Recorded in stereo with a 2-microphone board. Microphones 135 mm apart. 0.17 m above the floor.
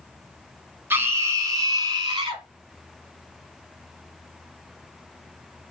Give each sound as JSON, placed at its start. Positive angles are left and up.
{"t": 0.9, "sound": "a scream", "side_deg": -15, "distance_m": 1.7}